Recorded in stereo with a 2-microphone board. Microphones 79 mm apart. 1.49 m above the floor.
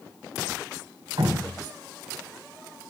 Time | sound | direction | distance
1.2 | dripping | 75° right (ahead or behind) | 1.6 m